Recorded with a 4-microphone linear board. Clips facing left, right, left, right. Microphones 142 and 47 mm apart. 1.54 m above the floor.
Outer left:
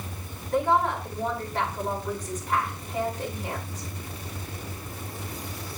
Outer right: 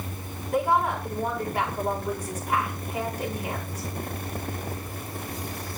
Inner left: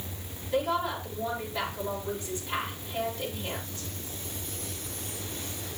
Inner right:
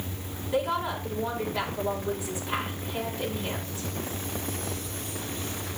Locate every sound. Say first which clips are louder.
0.5 s a woman speaking: even, even; 10° right (ahead or behind), 5 m